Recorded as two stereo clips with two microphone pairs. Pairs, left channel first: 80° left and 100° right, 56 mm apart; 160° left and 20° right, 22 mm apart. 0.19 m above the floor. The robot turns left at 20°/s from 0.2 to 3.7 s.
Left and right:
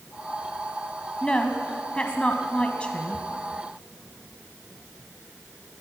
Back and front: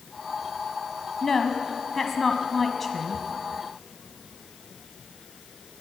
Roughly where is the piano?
I don't hear a piano.